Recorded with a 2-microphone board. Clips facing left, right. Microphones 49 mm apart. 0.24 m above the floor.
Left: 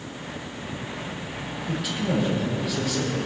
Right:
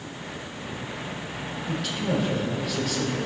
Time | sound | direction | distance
1.7 | a man speaking | 5° left (ahead or behind) | 6 m